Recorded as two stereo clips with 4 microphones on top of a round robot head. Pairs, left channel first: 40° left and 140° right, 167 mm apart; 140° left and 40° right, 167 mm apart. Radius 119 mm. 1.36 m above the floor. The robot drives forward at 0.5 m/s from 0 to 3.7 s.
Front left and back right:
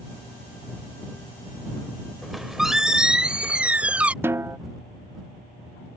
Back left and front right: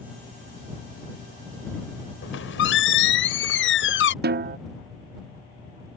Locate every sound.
2.2 s a squeak: 130° left; by 4.1 s 140° left
4.2 s a snare drum: 60° right